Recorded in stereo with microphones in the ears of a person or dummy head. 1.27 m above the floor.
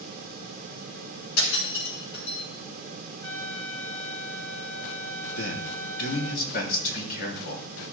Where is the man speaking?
50° left (ahead or behind), 3.5 m.